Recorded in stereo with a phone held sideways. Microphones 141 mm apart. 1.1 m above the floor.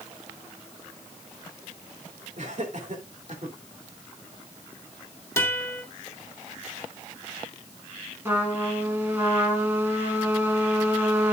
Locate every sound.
2.4 s laughter: 60° right (ahead or behind), 3 m
5.4 s a guitar: 20° left (ahead or behind), 2.5 m
8.2 s a trumpet: 15° right (ahead or behind), 3.5 m